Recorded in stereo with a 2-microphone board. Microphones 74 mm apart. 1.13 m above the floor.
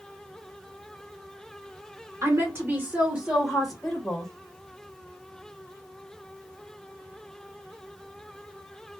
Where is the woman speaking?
45° right (ahead or behind), 1.2 m; by 4.3 s 15° left (ahead or behind), 1.2 m.